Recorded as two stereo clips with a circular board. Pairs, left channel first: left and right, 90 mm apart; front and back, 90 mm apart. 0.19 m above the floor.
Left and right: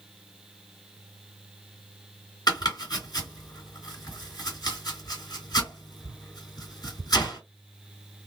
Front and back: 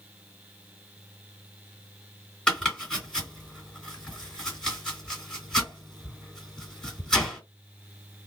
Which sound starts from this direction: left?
Chopping, at 2.5 s.